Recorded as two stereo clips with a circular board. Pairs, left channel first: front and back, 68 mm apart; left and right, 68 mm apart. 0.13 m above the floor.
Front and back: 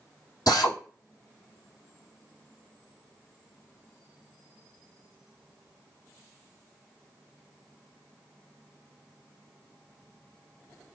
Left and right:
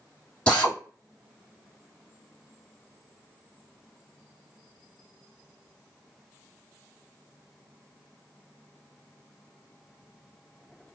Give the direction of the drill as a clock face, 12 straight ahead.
12 o'clock.